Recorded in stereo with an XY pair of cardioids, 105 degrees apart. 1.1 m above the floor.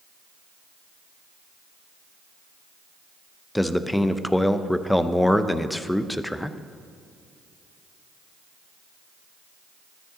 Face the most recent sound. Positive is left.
turn(degrees=5)